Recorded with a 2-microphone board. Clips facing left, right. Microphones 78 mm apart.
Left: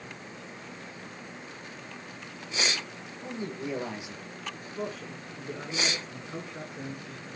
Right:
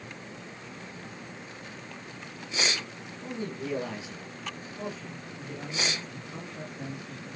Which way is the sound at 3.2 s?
20° left (ahead or behind).